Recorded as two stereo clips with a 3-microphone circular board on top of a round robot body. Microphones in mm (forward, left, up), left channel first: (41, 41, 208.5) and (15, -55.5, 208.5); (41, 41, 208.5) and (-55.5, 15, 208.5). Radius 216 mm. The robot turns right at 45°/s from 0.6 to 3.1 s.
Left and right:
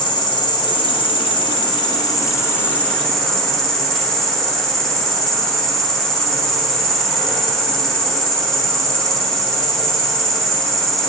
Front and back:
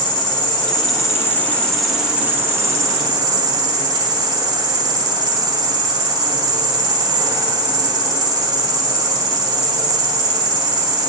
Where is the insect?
50° left, 0.8 m; by 11.1 s 160° left, 0.8 m.